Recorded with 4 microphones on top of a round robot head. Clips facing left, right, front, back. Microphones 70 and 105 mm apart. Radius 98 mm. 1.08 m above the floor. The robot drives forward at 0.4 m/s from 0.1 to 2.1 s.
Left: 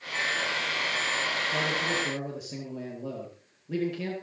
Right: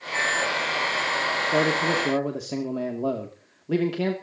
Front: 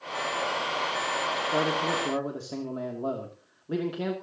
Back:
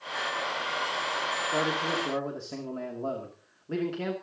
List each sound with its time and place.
1.4 s a man speaking: 75° right, 2.5 m; by 4.1 s 80° right, 2.5 m